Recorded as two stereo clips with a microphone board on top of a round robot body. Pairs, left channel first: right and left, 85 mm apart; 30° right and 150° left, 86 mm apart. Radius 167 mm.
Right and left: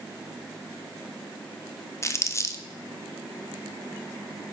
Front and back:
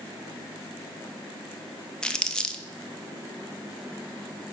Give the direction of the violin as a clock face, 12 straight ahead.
I don't hear a violin.